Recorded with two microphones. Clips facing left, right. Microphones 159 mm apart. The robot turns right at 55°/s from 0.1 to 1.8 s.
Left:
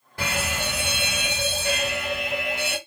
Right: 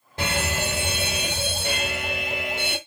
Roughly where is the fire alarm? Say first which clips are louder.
Right 2 dB; behind right.